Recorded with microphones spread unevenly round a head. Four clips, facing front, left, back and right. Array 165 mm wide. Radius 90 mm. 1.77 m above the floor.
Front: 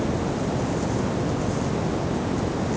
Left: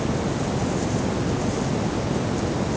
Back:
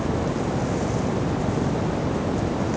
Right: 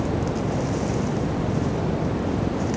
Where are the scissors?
No scissors in this recording.